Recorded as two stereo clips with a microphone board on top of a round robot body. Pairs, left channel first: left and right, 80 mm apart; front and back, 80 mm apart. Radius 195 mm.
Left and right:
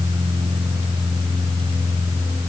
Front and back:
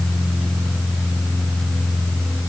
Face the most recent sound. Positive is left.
No sound to turn to.